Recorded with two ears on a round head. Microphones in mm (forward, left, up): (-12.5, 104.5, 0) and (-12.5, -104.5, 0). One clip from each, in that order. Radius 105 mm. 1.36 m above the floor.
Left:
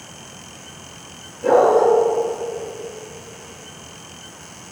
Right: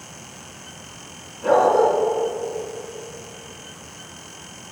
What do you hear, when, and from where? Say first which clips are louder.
1.4 s a dog barking: left 2 dB; 60° right (ahead or behind), 3.5 m